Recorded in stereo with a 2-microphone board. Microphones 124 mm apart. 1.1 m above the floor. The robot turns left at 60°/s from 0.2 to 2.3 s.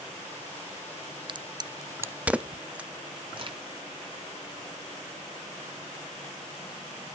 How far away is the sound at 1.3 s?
About 0.6 m.